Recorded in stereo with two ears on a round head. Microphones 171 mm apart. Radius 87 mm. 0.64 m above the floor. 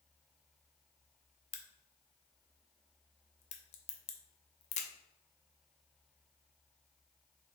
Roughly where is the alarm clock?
No alarm clock in this recording.